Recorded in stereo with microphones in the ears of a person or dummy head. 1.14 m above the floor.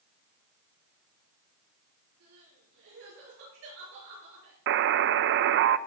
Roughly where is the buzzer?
Right.